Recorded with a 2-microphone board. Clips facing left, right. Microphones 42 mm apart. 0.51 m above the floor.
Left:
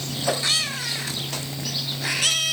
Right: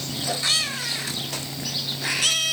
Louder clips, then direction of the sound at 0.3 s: Left 4 dB; 75° left (ahead or behind).